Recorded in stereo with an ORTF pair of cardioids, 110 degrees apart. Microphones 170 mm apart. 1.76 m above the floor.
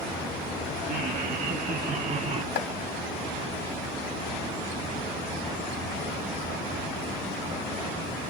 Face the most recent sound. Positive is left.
turn(degrees=65)